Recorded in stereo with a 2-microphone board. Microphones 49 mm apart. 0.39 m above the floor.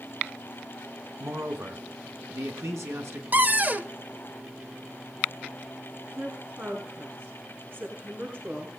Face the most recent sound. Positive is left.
turn(degrees=-45)  # may be behind; listen again after turning